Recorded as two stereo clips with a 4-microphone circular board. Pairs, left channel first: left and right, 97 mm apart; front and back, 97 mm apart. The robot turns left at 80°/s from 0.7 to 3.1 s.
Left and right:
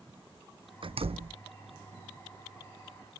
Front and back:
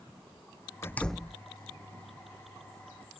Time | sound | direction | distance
0.8 | a door slam | 60° right | ?